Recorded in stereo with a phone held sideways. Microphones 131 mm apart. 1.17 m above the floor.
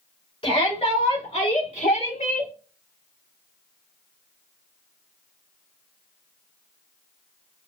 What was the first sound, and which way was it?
A shout, 45° left (ahead or behind).